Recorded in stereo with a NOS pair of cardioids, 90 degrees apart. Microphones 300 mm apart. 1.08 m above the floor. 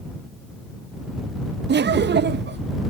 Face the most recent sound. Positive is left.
turn(degrees=-35)